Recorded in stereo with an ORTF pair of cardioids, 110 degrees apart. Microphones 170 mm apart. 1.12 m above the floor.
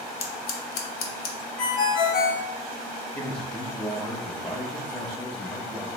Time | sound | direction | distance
0.2 | scissors | 70° left | 0.6 m
1.6 | a ringtone | 55° left | 0.7 m
3.1 | a man speaking | 15° left | 0.6 m